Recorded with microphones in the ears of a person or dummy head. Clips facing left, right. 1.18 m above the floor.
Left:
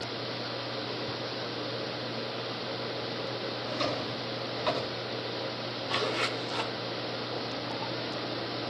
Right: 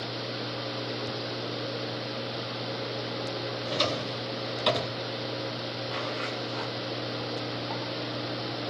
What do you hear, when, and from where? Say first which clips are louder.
3.7 s a drawer: right 2 dB; 45° right (ahead or behind), 2 m
5.9 s a zipper: left 4 dB; 70° left (ahead or behind), 2.0 m